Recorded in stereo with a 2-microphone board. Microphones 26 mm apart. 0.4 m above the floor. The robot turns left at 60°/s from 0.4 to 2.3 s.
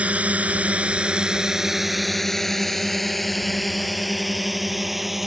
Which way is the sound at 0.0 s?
70° right (ahead or behind).